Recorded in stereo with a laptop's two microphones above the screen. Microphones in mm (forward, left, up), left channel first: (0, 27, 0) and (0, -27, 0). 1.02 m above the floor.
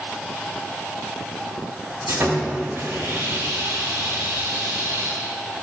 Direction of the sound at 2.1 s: 45° right (ahead or behind).